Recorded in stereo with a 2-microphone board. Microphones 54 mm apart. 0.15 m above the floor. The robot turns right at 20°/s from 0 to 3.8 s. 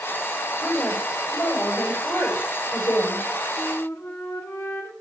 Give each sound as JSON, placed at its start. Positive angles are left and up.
{"t": 0.6, "sound": "a woman speaking", "azimuth_deg": 20, "distance_m": 7.5}
{"t": 3.6, "sound": "a flute", "side_deg": 60, "distance_m": 2.5}